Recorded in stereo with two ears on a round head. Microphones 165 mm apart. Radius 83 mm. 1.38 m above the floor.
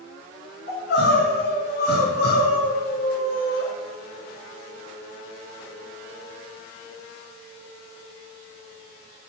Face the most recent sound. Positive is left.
turn(degrees=60)  # may be behind; listen again after turning